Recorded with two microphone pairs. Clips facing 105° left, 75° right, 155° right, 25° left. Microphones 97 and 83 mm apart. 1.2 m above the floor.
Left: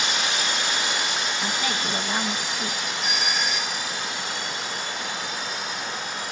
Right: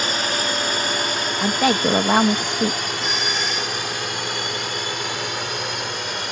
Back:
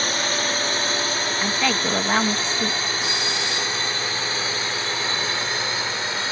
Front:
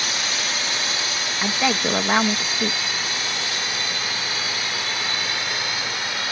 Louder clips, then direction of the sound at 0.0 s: Right 3 dB, back 3 dB; 110° right.